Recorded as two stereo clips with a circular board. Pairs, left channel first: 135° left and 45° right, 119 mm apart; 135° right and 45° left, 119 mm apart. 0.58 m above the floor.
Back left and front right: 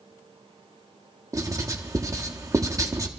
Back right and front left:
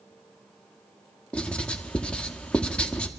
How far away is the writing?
About 0.9 m.